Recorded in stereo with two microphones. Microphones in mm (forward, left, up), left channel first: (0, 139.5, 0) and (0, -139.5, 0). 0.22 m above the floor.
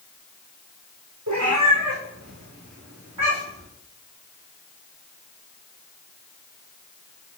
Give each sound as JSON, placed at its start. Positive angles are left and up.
{"t": 1.3, "sound": "a cat meowing", "side_deg": -80, "distance_m": 3.0}